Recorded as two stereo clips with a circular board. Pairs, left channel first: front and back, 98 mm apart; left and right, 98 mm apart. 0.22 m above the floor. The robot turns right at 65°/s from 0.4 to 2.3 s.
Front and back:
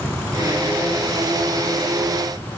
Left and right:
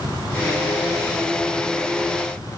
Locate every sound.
Only background noise.